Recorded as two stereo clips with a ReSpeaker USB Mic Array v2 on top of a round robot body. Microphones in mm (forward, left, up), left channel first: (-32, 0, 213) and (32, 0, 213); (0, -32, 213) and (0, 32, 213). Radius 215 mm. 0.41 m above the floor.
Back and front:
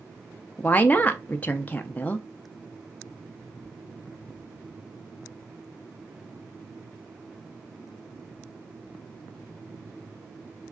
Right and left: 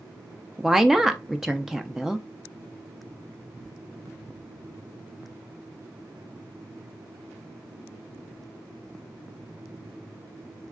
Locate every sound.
0.6 s a woman speaking: 170° left, 0.7 m